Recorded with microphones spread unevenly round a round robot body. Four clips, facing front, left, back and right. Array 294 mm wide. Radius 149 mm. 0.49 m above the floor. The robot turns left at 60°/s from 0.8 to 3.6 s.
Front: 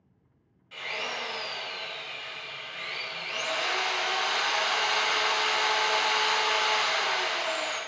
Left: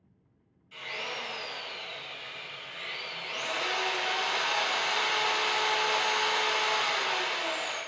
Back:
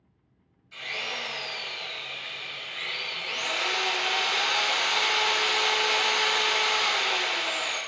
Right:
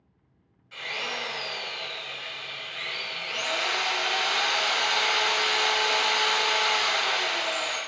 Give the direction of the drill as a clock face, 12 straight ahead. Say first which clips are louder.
Right 4 dB, front 1 dB; 1 o'clock.